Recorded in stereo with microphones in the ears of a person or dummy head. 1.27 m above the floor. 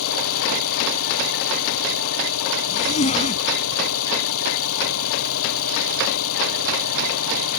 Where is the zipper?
35° left (ahead or behind).